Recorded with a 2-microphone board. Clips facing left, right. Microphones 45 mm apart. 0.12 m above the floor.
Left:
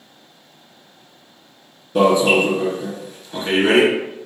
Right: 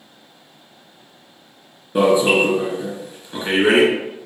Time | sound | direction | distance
1.9 | an alarm | 20° right (ahead or behind) | 2.5 m